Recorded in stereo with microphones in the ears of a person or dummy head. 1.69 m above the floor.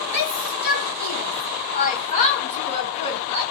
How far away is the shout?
About 5 m.